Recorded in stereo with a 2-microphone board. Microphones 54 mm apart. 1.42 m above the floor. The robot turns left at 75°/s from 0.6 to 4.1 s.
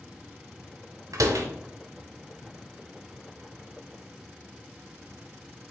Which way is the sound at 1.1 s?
75° right (ahead or behind).